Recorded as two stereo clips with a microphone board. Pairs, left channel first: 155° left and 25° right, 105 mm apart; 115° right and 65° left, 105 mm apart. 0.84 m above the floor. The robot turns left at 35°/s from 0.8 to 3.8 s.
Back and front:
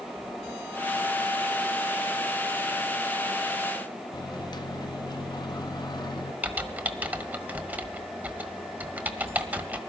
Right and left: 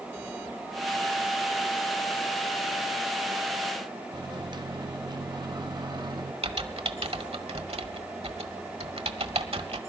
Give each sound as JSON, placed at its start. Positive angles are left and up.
{"t": 4.1, "sound": "a microwave", "azimuth_deg": 110, "distance_m": 0.7}
{"t": 6.4, "sound": "typing on a keyboard", "azimuth_deg": 50, "distance_m": 1.4}